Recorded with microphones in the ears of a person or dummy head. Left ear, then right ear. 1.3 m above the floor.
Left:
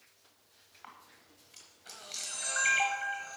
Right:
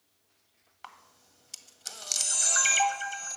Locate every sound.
0.8 s a camera shutter: 85° right, 1.7 m